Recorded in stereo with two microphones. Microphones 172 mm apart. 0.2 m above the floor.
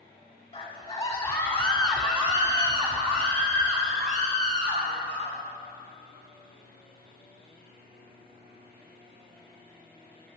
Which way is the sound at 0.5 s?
35° left (ahead or behind).